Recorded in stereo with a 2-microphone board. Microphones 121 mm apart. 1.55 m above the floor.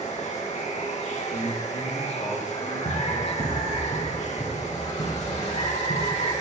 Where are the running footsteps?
70° left (ahead or behind), 4 m.